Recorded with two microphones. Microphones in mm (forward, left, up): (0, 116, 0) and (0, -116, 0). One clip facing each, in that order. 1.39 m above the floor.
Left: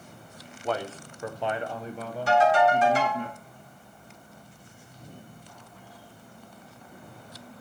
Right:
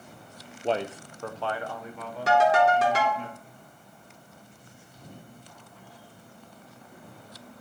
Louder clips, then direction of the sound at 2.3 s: Even; 75° right (ahead or behind).